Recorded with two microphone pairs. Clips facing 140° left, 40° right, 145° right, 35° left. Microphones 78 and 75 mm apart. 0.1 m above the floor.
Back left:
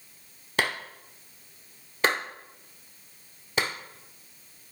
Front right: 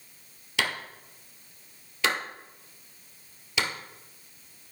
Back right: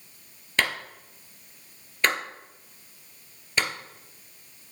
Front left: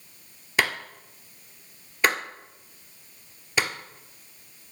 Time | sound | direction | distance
0.6 | a clap | 115° left | 1.4 m